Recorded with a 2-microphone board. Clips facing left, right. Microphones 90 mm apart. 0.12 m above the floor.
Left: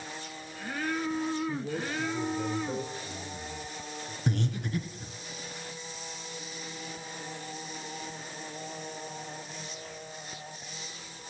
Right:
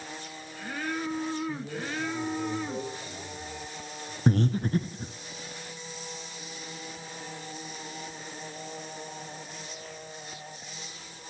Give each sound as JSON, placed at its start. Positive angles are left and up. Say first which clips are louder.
{"t": 1.5, "sound": "a man speaking", "louder": "left 1 dB", "side_deg": 20, "distance_m": 1.7}
{"t": 4.3, "sound": "breathing", "louder": "right 7 dB", "side_deg": -40, "distance_m": 0.7}